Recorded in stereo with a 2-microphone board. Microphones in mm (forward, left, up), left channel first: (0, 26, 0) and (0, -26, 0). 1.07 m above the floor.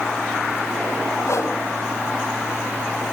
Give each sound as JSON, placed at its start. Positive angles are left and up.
{"t": 1.3, "sound": "a whoosh", "side_deg": 65, "distance_m": 2.5}